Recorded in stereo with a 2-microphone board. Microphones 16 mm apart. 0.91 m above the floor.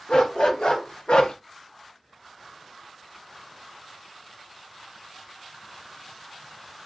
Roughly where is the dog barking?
Left.